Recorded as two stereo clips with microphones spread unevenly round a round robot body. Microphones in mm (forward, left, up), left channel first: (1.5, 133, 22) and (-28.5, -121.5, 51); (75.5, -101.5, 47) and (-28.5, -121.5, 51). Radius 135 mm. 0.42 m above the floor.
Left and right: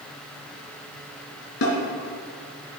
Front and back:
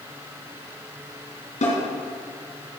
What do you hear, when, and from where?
1.6 s a snare drum: 35° left, 2.5 m